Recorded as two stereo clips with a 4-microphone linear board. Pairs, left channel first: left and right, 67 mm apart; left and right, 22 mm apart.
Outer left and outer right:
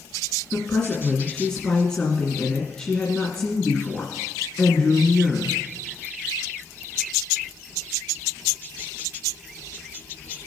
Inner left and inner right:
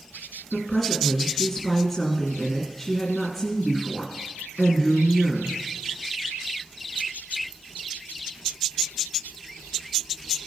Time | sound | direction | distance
0.5 | a woman speaking | 20° left (ahead or behind) | 1.9 m